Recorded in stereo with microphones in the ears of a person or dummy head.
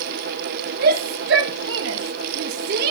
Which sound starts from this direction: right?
A shout, at 0.8 s.